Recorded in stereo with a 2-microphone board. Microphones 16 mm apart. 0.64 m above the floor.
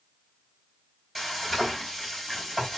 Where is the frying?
5° left (ahead or behind), 2.5 m.